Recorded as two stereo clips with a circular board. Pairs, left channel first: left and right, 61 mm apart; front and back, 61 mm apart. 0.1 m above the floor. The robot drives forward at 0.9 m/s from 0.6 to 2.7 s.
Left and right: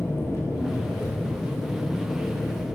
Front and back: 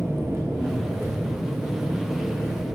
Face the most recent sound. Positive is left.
turn(degrees=145)